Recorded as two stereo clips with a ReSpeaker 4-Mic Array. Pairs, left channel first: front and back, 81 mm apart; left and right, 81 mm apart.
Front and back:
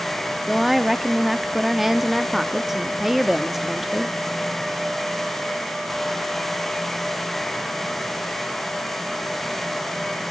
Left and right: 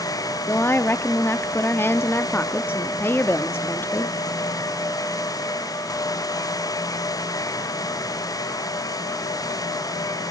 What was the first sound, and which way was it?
A woman speaking, 95° left.